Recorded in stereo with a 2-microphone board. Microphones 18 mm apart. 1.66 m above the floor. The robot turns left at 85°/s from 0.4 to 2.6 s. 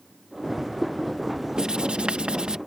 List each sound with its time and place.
1.6 s writing: 40° right; by 2.6 s 130° right